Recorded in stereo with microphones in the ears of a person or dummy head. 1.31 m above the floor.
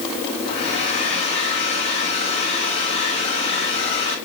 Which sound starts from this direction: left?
A hair dryer, at 0.5 s.